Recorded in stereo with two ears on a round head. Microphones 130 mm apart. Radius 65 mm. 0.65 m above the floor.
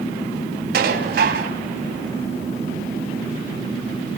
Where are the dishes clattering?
70° right (ahead or behind), 3.5 m.